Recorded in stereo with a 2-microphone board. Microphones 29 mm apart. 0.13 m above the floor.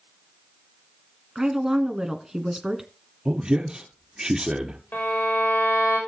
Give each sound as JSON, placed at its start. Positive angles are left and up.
{"t": 1.4, "sound": "a woman speaking", "side_deg": -20, "distance_m": 1.2}
{"t": 3.2, "sound": "a man speaking", "side_deg": -35, "distance_m": 1.9}
{"t": 4.9, "sound": "a violin", "side_deg": 90, "distance_m": 9.0}